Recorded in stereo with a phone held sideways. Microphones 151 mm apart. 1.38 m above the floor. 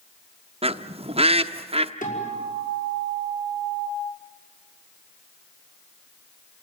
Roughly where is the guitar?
Left.